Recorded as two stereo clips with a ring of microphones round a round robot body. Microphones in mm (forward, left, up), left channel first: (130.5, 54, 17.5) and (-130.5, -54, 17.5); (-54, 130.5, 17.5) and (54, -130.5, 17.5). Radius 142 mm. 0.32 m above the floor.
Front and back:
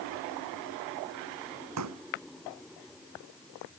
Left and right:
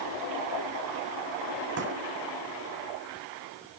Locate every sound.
1.8 s a pop: 120° right